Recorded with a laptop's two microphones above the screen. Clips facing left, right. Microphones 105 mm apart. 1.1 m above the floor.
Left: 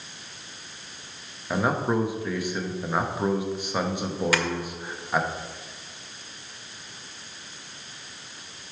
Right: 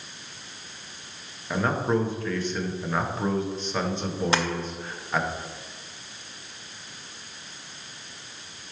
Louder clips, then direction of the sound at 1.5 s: Even; 10° left (ahead or behind).